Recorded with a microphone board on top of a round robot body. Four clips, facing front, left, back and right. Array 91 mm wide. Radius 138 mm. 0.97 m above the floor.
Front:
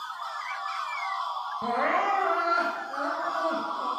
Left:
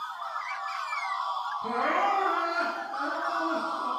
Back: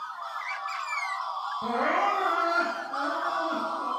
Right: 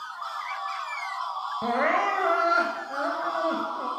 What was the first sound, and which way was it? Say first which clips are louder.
Crying: right 3 dB, even; 70° right.